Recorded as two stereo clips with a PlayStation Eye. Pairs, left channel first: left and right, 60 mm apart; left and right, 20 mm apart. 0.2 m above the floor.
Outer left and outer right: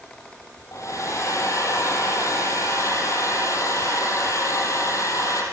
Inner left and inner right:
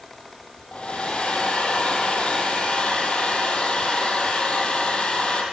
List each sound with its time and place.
0.7 s a hair dryer: 55° left (ahead or behind), 5.5 m